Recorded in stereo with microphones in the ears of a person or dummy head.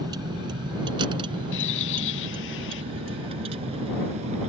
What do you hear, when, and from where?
0.0 s a vehicle: 25° right (ahead or behind); by 4.5 s 35° right (ahead or behind)
1.5 s a bird: 70° left (ahead or behind)